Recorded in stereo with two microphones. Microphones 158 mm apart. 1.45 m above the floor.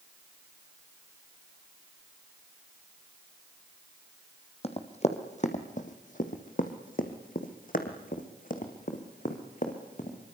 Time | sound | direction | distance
4.6 | running footsteps | 40° left (ahead or behind) | 2.5 m